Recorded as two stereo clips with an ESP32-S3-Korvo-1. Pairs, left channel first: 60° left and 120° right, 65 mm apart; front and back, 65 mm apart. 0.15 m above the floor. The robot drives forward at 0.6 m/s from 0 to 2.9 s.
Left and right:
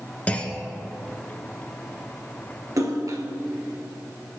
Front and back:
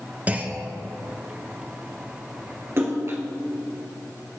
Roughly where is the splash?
Behind right.